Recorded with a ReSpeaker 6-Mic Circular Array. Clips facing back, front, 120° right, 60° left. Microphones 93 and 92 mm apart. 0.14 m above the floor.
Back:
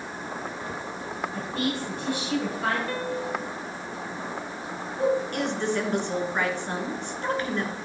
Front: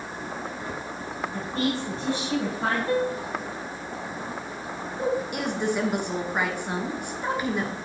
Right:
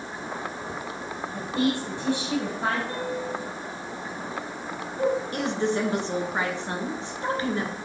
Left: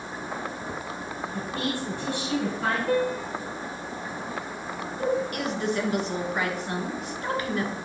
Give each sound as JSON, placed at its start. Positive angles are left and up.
{"t": 1.3, "sound": "a woman speaking", "azimuth_deg": -60, "distance_m": 3.0}
{"t": 2.9, "sound": "a piano", "azimuth_deg": 65, "distance_m": 0.8}
{"t": 5.0, "sound": "a woman speaking", "azimuth_deg": -75, "distance_m": 1.4}